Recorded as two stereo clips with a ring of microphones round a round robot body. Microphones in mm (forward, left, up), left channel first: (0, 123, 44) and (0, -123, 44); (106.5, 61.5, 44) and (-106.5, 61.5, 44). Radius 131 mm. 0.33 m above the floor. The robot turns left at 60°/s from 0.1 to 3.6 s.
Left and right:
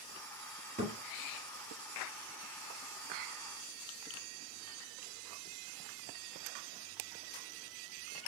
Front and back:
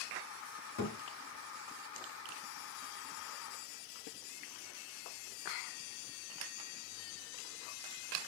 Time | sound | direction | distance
0.8 | a thud | 25° right | 2 m